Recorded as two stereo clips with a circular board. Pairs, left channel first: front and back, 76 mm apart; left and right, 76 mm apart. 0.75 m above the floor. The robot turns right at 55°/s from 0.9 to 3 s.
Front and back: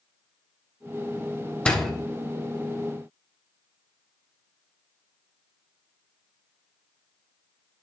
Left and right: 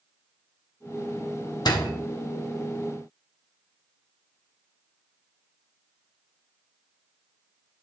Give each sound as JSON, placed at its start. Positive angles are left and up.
{"t": 1.6, "sound": "a door slam", "azimuth_deg": 75, "distance_m": 1.1}